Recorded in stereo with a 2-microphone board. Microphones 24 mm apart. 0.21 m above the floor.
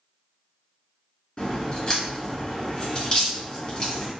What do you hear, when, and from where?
1.4 s a crack: 40° left (ahead or behind), 1.5 m